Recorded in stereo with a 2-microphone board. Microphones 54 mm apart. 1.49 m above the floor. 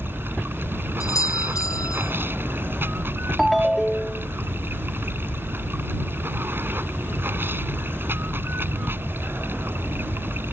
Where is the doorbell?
80° left.